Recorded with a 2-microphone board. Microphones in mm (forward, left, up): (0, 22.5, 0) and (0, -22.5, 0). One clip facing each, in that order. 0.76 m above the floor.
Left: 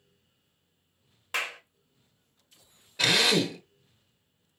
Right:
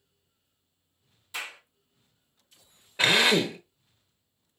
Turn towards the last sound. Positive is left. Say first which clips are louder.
# right 2 dB
turn(degrees=-30)  # may be behind; listen again after turning